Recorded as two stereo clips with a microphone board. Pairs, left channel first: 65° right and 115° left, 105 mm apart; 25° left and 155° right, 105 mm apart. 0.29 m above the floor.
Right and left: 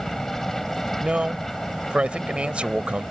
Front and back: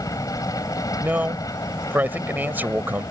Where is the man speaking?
170° left.